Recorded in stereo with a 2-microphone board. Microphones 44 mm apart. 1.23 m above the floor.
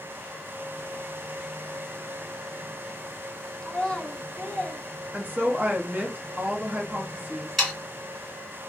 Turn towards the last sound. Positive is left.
turn(degrees=5)  # may be behind; listen again after turning